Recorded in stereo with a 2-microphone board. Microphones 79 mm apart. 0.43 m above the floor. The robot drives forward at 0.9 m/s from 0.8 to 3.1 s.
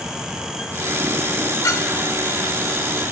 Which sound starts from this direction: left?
A clink, at 1.6 s.